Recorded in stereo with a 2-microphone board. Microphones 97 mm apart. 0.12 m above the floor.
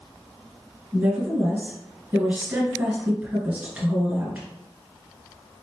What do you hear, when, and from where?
0.9 s a woman speaking: 15° right (ahead or behind), 1.7 m